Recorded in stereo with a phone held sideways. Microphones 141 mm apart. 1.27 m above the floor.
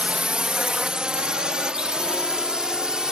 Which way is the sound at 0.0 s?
5° right (ahead or behind).